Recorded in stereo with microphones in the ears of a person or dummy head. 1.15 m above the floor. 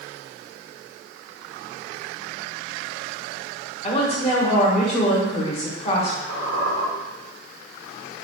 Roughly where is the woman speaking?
Left.